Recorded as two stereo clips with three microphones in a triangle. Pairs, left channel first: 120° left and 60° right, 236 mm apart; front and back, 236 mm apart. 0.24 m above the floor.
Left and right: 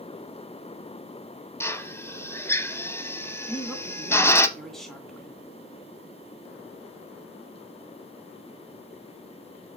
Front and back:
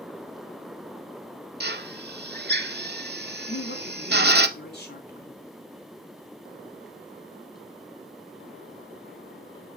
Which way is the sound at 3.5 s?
30° left.